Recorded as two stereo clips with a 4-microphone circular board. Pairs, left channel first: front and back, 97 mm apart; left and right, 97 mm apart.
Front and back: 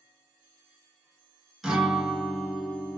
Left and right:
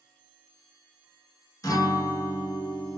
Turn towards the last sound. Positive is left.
turn(degrees=95)